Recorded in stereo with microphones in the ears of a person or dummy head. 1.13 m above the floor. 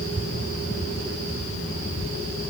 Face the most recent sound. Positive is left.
No sound to turn to.